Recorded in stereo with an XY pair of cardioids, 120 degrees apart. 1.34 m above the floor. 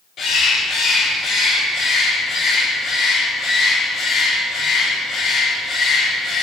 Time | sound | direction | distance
0.2 | a bird | 55° left | 4 m